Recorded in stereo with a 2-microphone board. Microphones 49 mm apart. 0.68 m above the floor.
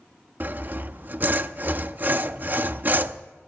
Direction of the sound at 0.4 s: 40° right (ahead or behind).